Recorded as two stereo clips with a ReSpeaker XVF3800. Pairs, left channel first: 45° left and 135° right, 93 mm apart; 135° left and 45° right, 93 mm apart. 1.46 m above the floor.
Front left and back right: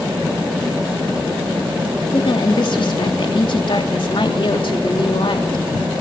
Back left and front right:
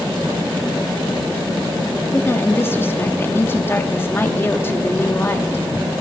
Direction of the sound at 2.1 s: 70° left.